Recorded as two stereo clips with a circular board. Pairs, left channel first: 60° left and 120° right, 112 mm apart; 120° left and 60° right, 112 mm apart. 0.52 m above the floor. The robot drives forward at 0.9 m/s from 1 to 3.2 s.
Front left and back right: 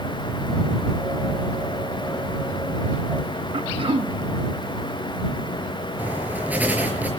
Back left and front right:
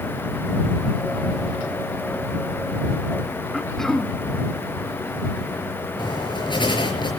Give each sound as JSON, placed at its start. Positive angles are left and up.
{"t": 3.5, "sound": "throat clearing", "azimuth_deg": -155, "distance_m": 0.8}
{"t": 6.0, "sound": "writing", "azimuth_deg": 165, "distance_m": 5.5}